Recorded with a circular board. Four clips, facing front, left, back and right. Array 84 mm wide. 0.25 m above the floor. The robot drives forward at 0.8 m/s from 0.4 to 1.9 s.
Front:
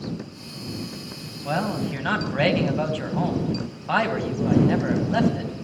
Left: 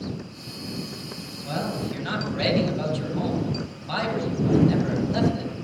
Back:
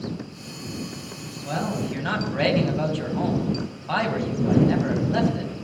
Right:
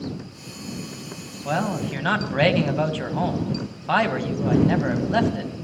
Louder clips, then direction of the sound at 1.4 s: Right 4 dB, front 2 dB; 60° right.